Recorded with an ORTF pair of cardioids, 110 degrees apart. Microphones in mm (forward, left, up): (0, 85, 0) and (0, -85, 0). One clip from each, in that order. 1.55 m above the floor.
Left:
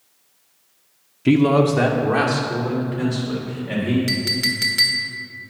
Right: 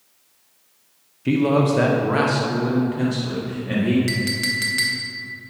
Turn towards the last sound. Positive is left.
turn(degrees=10)